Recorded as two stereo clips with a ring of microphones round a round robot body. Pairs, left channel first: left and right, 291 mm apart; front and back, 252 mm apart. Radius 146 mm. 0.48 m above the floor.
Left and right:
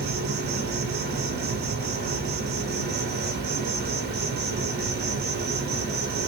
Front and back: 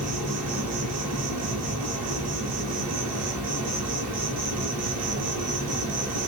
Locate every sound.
0.0 s an insect: 145° right, 1.0 m